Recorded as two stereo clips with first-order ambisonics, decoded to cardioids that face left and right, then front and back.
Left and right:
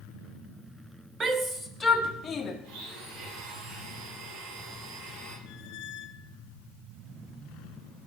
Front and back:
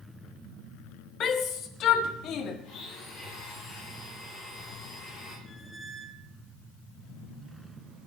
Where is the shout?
35° right, 0.8 m; by 2.5 s 35° left, 1.0 m.